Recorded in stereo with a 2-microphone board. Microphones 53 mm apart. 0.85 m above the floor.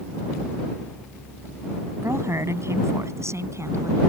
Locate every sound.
2.0 s a woman speaking: 60° right (ahead or behind)